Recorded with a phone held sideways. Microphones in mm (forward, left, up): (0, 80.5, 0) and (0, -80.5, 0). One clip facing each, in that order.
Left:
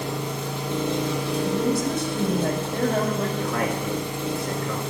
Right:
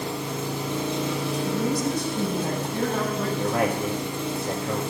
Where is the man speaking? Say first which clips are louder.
Right 2 dB; 10° right (ahead or behind), 1.3 m.